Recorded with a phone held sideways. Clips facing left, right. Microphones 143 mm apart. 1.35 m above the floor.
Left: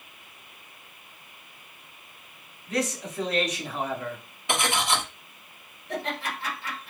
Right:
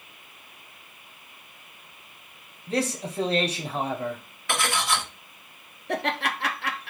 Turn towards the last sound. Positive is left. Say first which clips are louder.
# right 4 dB
turn(degrees=-70)  # may be behind; listen again after turning